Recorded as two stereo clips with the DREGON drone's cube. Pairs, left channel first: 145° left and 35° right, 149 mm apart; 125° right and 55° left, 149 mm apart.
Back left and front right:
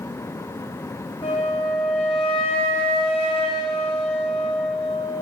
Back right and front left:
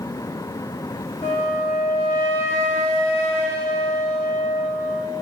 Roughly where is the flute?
Behind.